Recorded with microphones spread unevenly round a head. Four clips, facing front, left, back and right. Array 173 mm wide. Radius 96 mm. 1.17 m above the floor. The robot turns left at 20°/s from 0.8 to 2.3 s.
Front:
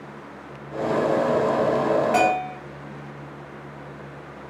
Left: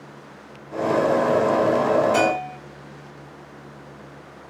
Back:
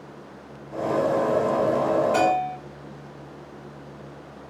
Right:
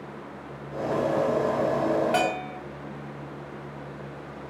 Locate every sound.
2.1 s a bell: 30° right, 2.5 m